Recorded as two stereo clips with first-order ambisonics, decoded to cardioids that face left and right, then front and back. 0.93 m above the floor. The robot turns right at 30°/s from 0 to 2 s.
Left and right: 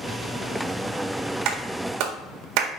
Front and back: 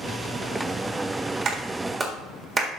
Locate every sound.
1.4 s a clap: 125° right, 1.6 m; by 2.7 s 105° right, 1.6 m